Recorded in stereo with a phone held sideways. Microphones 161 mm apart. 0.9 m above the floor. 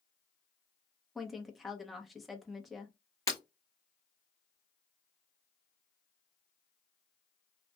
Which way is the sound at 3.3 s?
20° left (ahead or behind).